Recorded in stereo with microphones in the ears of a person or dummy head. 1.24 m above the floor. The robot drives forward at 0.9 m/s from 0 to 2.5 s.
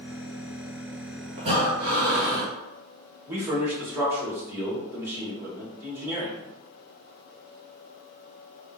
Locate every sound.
1.4 s breathing: 35° right (ahead or behind), 1.1 m; by 2.5 s 20° right (ahead or behind), 2.0 m
3.3 s a man speaking: 15° right (ahead or behind), 1.4 m